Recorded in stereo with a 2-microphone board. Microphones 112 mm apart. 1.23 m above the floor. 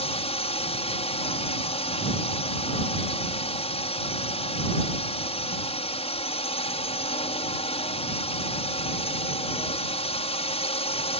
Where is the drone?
65° left (ahead or behind).